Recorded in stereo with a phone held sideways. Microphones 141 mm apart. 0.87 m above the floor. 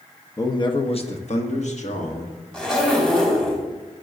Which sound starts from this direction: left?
A man speaking, at 0.4 s.